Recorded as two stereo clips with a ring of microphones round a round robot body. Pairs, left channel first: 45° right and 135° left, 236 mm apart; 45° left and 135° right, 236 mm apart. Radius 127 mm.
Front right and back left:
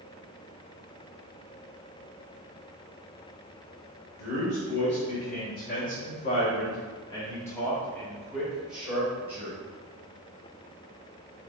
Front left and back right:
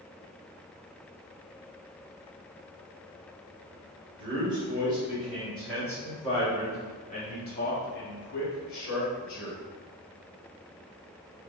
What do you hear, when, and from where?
4.2 s a man speaking: 70° right, 1.6 m; by 9.6 s 55° left, 2 m